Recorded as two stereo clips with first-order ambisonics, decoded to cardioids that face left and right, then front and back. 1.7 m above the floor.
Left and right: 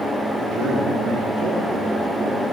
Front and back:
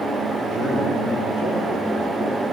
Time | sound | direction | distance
0.4 | a man speaking | 125° right | 6 m